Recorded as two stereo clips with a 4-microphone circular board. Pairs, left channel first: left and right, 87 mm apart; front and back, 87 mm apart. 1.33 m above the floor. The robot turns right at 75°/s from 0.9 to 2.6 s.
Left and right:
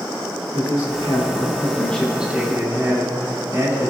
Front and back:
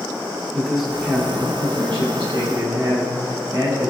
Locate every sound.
0.5 s a man speaking: 95° left, 2.5 m; by 3.9 s 140° right, 2.5 m